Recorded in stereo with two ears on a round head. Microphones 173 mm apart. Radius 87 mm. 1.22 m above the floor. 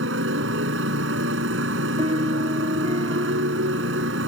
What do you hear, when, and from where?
0.0 s a motorcycle: 70° right (ahead or behind)
2.0 s a piano: 30° right (ahead or behind)